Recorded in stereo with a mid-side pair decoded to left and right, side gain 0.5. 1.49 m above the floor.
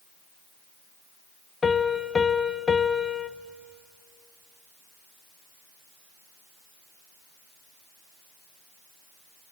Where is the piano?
35° left, 1.1 m.